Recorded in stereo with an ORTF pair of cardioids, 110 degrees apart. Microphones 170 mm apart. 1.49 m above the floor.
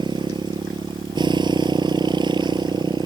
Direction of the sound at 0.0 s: 25° right.